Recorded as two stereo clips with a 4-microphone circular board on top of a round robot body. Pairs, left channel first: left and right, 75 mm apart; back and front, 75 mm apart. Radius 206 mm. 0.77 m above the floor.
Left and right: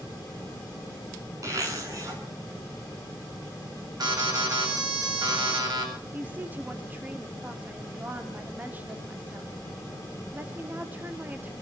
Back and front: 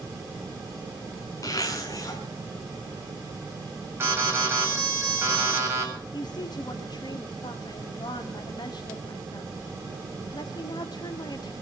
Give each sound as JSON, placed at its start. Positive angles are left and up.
{"t": 1.4, "sound": "a zipper", "azimuth_deg": -135, "distance_m": 5.5}
{"t": 4.0, "sound": "an alarm", "azimuth_deg": -60, "distance_m": 8.0}
{"t": 6.1, "sound": "a woman speaking", "azimuth_deg": -155, "distance_m": 2.0}